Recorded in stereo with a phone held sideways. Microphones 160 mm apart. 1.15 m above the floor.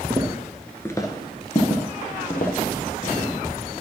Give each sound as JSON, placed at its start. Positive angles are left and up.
{"t": 0.1, "sound": "footsteps", "side_deg": -15, "distance_m": 1.3}